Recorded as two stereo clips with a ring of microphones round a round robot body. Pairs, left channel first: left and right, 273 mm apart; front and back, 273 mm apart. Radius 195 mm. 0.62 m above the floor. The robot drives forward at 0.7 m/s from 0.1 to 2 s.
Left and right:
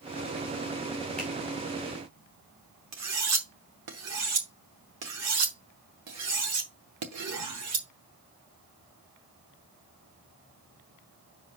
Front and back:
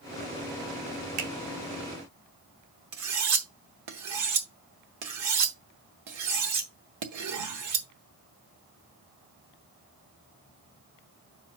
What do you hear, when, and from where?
1.2 s a finger snap: 175° left, 1.5 m
2.9 s cutlery clinking: 140° right, 0.7 m